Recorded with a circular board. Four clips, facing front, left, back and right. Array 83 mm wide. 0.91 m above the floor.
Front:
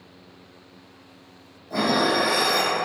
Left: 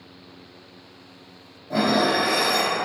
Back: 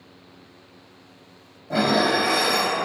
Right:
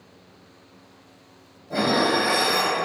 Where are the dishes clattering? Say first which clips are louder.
Left 1 dB, back 1 dB; 165° left, 0.8 m.